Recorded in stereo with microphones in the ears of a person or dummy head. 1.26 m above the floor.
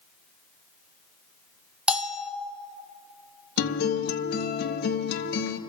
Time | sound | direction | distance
1.9 | a bell | 5° right (ahead or behind) | 0.9 m
3.6 | a guitar | 60° left (ahead or behind) | 1.3 m